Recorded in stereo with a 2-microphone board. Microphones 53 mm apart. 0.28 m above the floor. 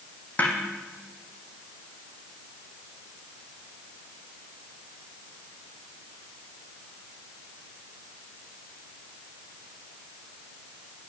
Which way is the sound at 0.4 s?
30° left (ahead or behind).